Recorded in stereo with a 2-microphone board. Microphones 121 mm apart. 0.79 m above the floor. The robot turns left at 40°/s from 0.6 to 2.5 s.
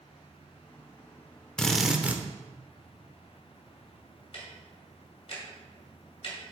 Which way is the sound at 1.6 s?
5° left (ahead or behind).